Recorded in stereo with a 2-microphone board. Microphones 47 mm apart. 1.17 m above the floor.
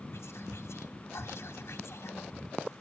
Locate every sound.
0.1 s whispering: 60° left (ahead or behind), 1.1 m